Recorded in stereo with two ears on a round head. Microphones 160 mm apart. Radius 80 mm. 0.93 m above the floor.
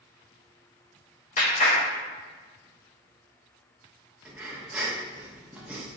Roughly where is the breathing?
Centre.